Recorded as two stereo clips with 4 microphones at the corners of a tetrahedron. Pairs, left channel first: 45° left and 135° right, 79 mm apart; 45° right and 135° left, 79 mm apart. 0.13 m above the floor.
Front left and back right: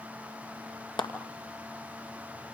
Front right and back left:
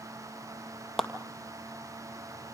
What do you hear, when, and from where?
1.0 s a clap: 40° left, 2.5 m